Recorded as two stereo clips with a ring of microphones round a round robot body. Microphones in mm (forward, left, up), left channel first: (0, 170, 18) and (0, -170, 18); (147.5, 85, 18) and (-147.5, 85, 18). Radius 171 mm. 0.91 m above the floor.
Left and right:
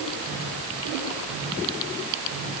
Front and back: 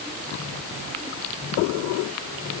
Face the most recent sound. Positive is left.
No sound to turn to.